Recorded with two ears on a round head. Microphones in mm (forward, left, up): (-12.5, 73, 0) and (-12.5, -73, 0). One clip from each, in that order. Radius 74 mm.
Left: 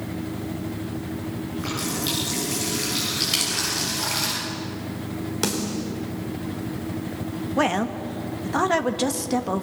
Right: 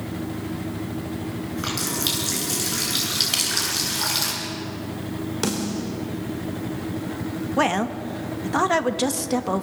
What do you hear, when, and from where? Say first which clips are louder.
1.6 s a running tap: right 2 dB; 60° right (ahead or behind), 9 m
3.3 s crushing: even; 10° right (ahead or behind), 5 m
5.4 s a snare drum: left 1 dB; 15° left (ahead or behind), 4 m
7.6 s a woman speaking: right 1 dB; 10° right (ahead or behind), 1.2 m